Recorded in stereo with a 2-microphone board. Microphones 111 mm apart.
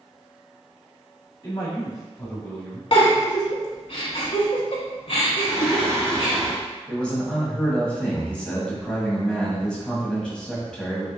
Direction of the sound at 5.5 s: 25° right (ahead or behind).